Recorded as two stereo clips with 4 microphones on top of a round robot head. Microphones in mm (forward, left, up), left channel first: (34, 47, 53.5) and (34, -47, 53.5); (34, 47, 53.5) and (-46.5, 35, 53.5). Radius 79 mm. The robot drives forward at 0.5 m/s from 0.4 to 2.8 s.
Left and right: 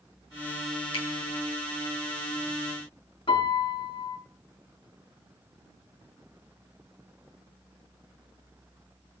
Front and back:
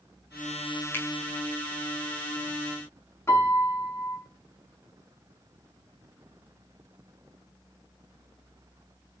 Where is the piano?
65° left, 7 m.